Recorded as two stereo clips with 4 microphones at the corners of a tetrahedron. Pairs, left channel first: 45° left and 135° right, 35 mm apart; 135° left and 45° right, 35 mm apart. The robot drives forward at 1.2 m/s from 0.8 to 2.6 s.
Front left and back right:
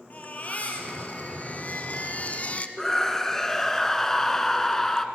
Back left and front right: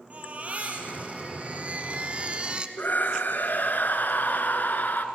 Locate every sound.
0.1 s a baby crying: 5° left, 3.5 m; by 2.7 s 10° left, 1.3 m
2.8 s a scream: 120° left, 2 m